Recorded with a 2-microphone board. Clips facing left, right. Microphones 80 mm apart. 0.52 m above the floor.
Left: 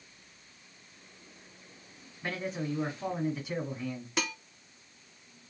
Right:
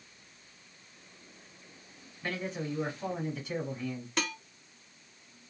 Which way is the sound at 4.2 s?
5° left (ahead or behind).